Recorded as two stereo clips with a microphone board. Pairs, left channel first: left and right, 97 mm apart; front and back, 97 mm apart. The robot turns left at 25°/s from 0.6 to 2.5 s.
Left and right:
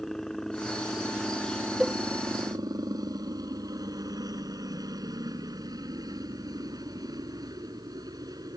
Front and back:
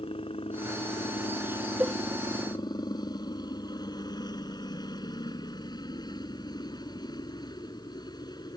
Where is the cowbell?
175° right; by 2.0 s straight behind.